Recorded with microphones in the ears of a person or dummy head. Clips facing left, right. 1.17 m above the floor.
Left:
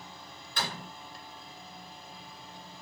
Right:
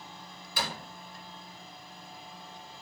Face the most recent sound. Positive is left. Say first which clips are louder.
# right 1 dB
turn(degrees=-5)  # may be behind; listen again after turning